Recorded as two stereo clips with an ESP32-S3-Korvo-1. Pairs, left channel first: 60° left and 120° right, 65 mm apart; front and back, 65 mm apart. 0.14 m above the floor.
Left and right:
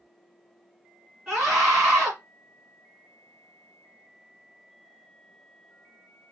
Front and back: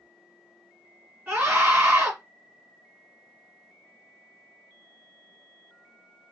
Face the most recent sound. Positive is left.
turn(degrees=165)